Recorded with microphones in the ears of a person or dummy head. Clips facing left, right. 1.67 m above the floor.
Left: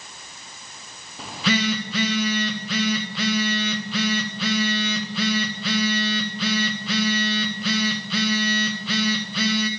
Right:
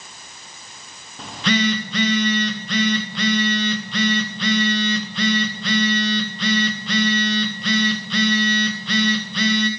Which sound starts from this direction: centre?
A phone buzzing, at 1.2 s.